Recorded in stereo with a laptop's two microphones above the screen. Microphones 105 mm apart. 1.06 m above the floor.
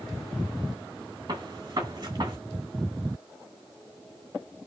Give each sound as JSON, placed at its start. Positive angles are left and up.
{"t": 1.3, "sound": "a gunshot", "side_deg": -45, "distance_m": 1.1}